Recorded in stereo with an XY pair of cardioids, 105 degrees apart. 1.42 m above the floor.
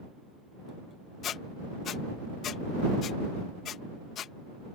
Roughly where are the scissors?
No scissors in this recording.